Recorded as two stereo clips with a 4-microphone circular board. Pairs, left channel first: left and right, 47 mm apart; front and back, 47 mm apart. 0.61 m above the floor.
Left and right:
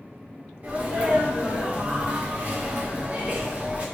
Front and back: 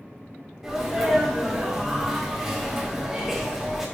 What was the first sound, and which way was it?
A sneeze, 105° right.